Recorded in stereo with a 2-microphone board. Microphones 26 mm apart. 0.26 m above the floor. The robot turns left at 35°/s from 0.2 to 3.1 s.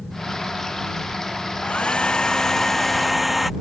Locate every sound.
1.6 s a hair dryer: 50° left; by 3.5 s straight ahead